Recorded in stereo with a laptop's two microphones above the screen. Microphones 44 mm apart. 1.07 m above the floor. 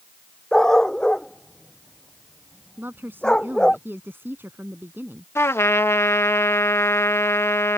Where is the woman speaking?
50° right (ahead or behind).